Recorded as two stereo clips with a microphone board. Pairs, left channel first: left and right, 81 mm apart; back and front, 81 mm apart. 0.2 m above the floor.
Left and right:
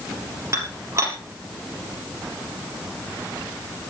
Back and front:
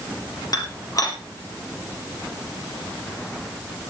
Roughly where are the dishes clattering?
Behind right.